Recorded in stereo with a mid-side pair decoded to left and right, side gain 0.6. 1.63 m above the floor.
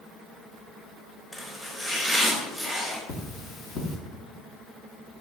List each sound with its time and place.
1.3 s chopping: 15° left, 3.5 m
3.1 s cutlery clinking: 60° left, 2.5 m